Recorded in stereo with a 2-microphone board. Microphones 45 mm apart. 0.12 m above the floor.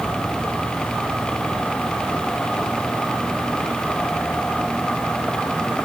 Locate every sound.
Only background noise.